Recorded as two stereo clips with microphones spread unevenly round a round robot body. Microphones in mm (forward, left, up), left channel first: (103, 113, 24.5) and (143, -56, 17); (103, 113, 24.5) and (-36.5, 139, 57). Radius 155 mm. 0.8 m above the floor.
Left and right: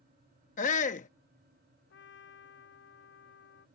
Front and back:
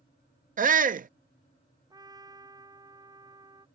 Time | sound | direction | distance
0.6 | a shout | 150° left | ?
1.9 | a trumpet | 110° left | ?